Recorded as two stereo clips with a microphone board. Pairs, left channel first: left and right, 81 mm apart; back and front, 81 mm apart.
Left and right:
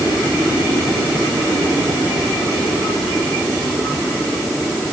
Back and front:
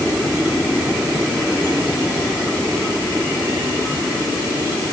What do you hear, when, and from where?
Only background noise.